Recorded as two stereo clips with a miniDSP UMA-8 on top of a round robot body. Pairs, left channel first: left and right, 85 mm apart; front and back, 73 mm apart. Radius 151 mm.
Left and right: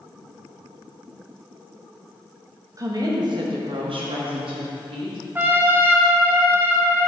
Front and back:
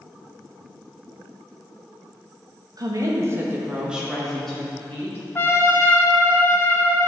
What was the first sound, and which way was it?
A woman speaking, 140° right.